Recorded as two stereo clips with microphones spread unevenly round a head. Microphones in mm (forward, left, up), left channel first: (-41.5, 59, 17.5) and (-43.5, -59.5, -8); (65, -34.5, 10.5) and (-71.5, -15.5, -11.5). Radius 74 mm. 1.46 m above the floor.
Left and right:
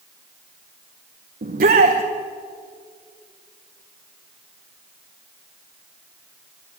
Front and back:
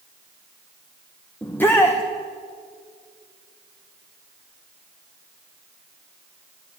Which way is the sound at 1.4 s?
85° right.